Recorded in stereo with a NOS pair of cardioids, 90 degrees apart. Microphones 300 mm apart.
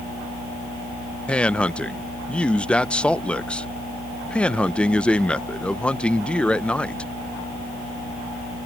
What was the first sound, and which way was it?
A man speaking, 5° left.